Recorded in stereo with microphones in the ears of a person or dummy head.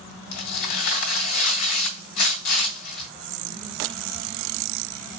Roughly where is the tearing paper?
Left.